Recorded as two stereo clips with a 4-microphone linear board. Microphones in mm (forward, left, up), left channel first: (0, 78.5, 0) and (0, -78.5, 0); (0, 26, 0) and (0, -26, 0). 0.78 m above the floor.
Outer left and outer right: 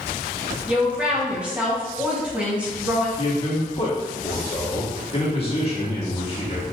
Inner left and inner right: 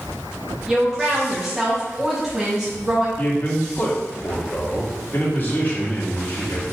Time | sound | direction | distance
0.7 | a woman speaking | 5° right (ahead or behind) | 1.3 m
3.2 | a man speaking | 40° left (ahead or behind) | 1.6 m